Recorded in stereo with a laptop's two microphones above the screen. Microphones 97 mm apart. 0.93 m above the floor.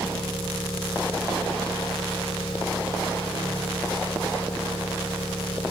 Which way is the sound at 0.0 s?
75° left (ahead or behind).